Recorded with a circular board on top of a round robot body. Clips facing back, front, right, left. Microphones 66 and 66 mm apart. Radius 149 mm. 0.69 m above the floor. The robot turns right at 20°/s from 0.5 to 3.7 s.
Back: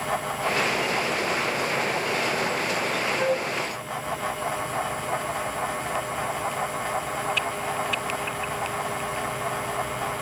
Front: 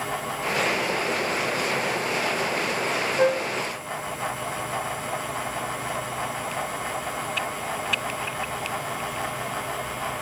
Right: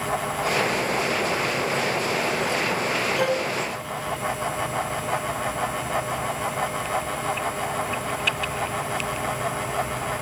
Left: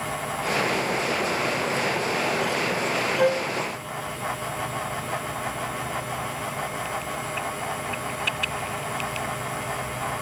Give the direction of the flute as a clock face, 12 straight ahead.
11 o'clock.